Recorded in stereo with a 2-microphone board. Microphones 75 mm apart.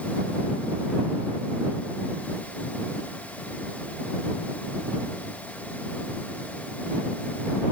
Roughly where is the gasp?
No gasp in this recording.